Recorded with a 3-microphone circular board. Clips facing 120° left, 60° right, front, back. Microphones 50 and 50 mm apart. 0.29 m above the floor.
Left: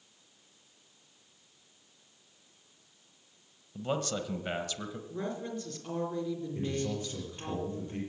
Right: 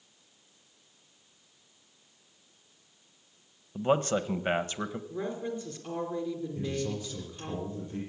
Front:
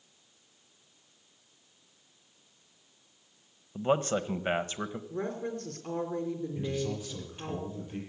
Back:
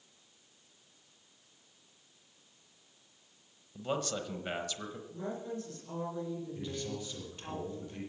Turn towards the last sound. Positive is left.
turn(degrees=70)